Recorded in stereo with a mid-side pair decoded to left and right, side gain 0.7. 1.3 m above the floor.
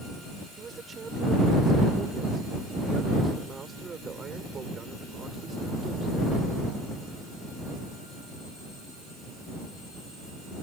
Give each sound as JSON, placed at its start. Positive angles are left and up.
{"t": 0.6, "sound": "a man speaking", "azimuth_deg": -25}